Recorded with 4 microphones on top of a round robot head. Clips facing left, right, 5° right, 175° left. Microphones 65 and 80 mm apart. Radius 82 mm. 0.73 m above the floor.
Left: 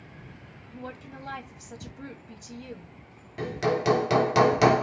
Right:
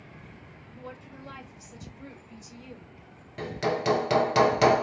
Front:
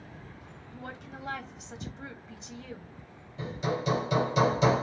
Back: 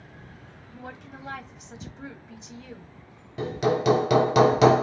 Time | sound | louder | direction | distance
0.7 | a woman speaking | left 4 dB, back 1 dB | 80° left | 1.2 m
3.4 | hammering | left 2 dB, back 8 dB | straight behind | 0.9 m